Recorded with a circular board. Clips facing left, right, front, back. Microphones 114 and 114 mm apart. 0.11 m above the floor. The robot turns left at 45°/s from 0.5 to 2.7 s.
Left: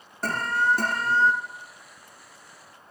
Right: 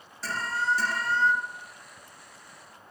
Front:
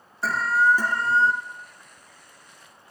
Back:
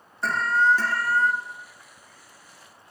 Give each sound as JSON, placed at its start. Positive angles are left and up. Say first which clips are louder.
{"t": 0.2, "sound": "an alarm", "louder": "left 5 dB, even", "azimuth_deg": 85, "distance_m": 1.7}